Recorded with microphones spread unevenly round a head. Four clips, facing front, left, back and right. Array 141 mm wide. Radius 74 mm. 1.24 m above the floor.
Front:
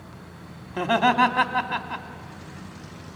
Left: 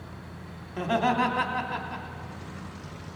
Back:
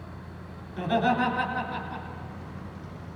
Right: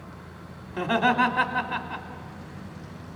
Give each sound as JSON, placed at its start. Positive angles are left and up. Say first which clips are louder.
{"t": 0.7, "sound": "laughter", "louder": "right 2 dB, front 4 dB", "azimuth_deg": 0, "distance_m": 2.5}